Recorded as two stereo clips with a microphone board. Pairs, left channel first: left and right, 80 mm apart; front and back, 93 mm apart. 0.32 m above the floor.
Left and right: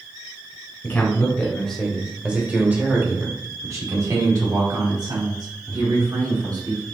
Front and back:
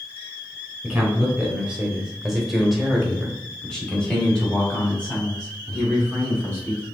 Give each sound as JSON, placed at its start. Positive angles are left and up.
{"t": 0.8, "sound": "a man speaking", "azimuth_deg": 125, "distance_m": 1.2}